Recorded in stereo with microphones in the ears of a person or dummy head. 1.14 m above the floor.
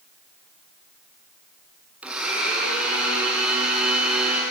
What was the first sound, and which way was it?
A blender, 10° right (ahead or behind).